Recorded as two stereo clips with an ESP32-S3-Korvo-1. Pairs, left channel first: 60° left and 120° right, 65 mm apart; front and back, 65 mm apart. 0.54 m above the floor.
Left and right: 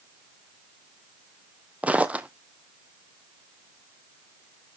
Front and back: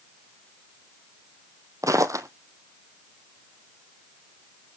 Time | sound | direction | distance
1.8 | footsteps | 175° left | 1.0 m